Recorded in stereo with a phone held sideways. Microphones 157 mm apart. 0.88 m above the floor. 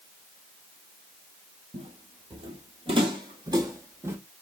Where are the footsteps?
40° right (ahead or behind), 1.2 m; by 4.2 s 15° right (ahead or behind), 1.2 m.